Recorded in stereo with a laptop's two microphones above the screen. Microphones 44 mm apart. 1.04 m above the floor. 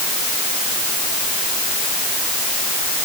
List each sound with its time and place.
Only background noise.